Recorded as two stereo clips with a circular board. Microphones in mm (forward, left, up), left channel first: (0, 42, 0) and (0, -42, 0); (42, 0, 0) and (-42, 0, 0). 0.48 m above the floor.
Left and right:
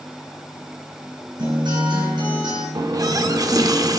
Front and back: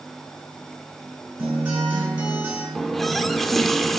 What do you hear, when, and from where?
1.4 s a guitar: 105° right, 4 m
2.8 s a running tap: 85° right, 0.5 m